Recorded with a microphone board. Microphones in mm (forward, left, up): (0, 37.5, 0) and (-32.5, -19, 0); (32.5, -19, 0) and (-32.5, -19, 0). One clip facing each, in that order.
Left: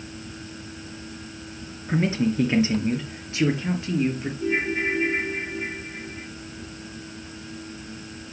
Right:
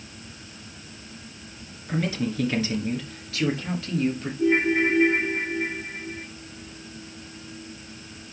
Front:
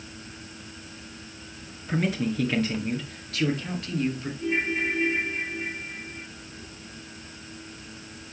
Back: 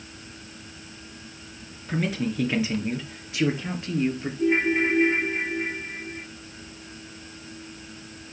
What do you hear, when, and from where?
1.9 s a man speaking: 85° left, 1.8 m; by 4.3 s 125° left, 2.5 m
4.4 s a ringtone: 150° right, 3.5 m